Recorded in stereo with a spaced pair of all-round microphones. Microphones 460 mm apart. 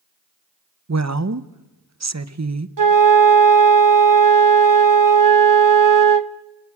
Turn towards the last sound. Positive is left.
turn(degrees=-45)  # may be behind; listen again after turning